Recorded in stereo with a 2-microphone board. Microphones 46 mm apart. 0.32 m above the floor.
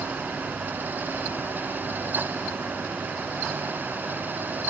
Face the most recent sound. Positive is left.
No sound to turn to.